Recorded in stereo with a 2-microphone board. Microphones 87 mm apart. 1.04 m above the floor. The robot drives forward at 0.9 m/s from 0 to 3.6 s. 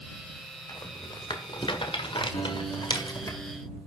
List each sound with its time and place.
0.7 s a rattle: 45° left (ahead or behind), 1.8 m
2.3 s a guitar: 45° left (ahead or behind), 3.5 m; by 3.9 s 35° left (ahead or behind), 4.5 m